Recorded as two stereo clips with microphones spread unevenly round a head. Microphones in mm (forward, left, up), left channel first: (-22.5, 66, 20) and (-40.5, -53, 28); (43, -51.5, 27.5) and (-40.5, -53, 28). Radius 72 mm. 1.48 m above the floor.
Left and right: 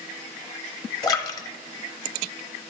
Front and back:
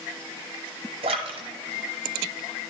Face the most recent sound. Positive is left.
turn(degrees=140)